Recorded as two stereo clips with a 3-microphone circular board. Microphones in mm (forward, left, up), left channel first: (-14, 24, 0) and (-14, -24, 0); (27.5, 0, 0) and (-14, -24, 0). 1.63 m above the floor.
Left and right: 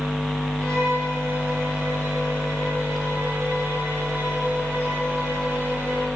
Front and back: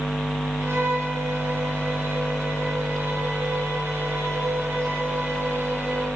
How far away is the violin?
About 6.5 m.